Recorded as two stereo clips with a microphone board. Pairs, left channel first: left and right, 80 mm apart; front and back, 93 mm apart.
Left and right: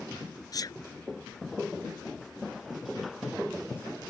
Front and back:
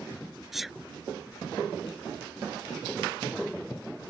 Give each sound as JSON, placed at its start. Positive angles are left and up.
{"t": 0.5, "sound": "a sneeze", "azimuth_deg": 95}